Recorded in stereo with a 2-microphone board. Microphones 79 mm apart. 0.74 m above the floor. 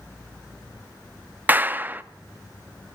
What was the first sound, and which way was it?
A clap, 25° right (ahead or behind).